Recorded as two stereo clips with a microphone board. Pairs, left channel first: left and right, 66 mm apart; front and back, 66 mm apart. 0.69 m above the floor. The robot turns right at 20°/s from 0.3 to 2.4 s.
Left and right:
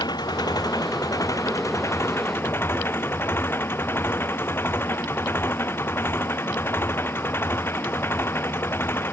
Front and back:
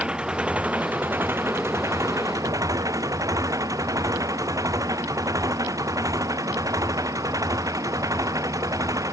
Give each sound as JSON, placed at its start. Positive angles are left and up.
{"t": 0.0, "sound": "an engine running", "azimuth_deg": 105}